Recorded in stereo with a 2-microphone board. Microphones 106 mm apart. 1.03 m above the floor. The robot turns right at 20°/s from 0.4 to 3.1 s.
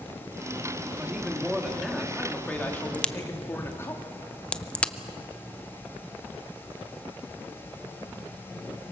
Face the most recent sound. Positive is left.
turn(degrees=10)  # may be behind; listen again after turning